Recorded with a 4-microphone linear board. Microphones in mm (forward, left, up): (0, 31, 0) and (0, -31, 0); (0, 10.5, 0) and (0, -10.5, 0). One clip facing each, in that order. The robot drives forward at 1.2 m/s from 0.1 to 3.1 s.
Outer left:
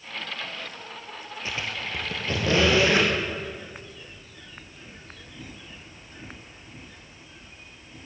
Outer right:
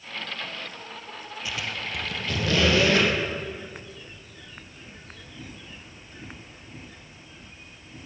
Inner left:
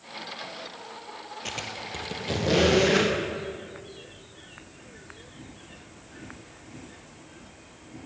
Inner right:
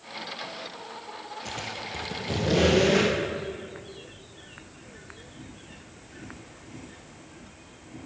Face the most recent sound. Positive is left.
turn(degrees=20)  # may be behind; listen again after turning